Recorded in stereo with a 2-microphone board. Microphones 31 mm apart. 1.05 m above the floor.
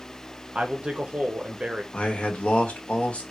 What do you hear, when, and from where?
0.6 s a man speaking: 40° right (ahead or behind), 0.6 m
1.9 s a man speaking: 45° left (ahead or behind), 1.1 m